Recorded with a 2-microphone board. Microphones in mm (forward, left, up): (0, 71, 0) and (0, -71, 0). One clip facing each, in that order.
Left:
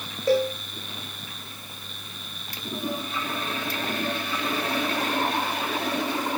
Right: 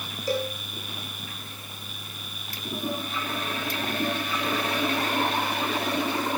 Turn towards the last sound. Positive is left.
turn(degrees=60)  # may be behind; listen again after turning